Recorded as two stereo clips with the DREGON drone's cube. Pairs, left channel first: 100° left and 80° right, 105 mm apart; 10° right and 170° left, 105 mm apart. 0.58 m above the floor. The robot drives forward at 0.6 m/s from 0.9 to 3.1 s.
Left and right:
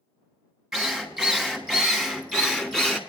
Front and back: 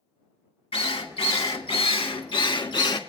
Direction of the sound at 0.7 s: 5° left.